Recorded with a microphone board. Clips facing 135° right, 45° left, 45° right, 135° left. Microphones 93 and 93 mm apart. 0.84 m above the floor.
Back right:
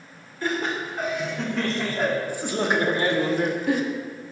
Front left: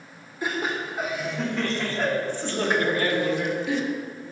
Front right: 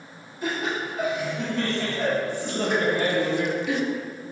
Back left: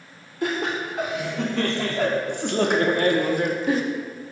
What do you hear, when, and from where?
0.4 s laughter: 120° left, 2 m; by 3.8 s 175° right, 1.0 m